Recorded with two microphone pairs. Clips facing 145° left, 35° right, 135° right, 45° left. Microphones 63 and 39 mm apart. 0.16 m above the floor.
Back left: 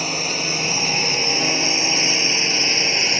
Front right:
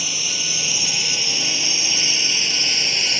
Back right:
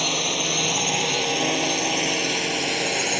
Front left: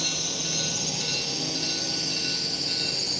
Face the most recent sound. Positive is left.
turn(degrees=-155)